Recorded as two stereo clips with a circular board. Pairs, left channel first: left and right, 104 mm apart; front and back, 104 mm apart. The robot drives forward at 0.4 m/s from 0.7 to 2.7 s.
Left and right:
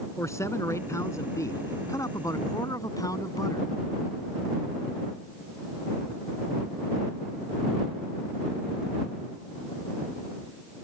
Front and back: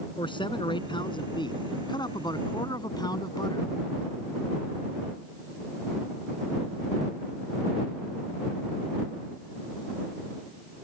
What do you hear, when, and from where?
0.2 s a man speaking: 30° left; by 3.7 s 40° left